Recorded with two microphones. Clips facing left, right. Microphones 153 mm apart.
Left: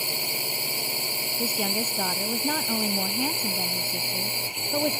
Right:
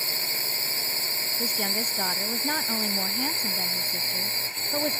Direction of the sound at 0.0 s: 15° left (ahead or behind).